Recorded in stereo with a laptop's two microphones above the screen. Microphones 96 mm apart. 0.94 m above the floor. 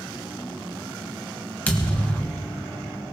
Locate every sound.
1.7 s a thud: 15° left (ahead or behind), 1.3 m